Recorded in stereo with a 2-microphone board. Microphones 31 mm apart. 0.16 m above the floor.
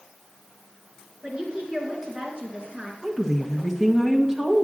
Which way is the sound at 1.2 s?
25° right (ahead or behind).